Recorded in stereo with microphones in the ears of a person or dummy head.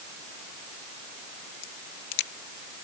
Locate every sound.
1.6 s a crack: 70° left (ahead or behind)